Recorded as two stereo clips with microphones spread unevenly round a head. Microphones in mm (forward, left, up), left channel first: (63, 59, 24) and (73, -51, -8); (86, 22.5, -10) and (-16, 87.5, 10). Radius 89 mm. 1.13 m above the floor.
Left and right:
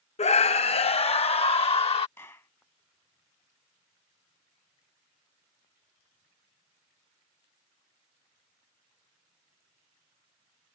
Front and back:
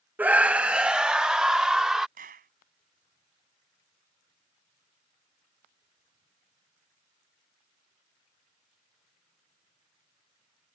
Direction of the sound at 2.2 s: 170° left.